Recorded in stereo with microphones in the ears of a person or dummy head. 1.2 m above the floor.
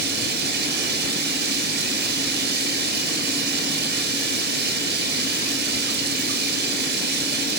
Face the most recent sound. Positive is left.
turn(degrees=-65)  # may be behind; listen again after turning